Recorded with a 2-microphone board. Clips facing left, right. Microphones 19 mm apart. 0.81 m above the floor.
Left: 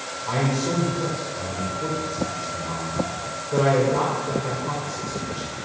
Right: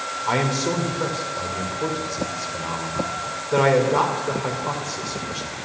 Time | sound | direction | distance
0.3 | a man speaking | 80° right | 2 m